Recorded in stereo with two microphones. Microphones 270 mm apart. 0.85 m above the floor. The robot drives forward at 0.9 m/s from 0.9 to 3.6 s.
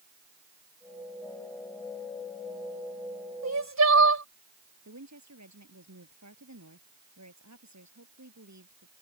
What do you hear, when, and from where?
3.4 s crying: 75° right (ahead or behind); by 4.2 s 80° right
4.8 s a woman speaking: 90° right